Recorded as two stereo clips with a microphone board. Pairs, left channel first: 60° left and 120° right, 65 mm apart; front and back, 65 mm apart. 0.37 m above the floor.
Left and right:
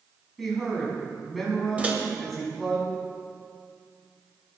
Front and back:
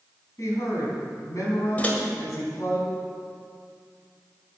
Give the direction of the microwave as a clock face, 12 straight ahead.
2 o'clock.